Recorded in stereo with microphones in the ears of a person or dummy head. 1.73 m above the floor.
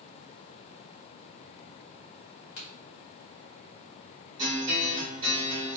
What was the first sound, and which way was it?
A crack, 45° left (ahead or behind).